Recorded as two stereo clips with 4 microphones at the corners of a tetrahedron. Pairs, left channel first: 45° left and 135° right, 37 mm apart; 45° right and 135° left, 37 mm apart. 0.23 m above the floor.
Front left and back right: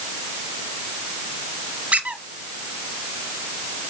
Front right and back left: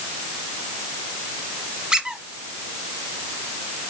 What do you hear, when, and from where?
1.9 s a squeak: 160° right, 1.2 m